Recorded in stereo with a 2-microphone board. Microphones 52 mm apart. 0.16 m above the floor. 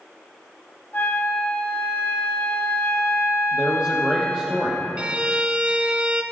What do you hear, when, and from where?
0.9 s a flute: 40° left (ahead or behind), 5.5 m
3.5 s a man speaking: 15° right (ahead or behind), 5 m
5.0 s a violin: 25° right (ahead or behind), 0.9 m